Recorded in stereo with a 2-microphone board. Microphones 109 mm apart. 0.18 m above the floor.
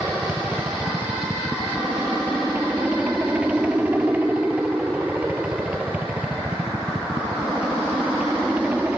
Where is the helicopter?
15° right (ahead or behind).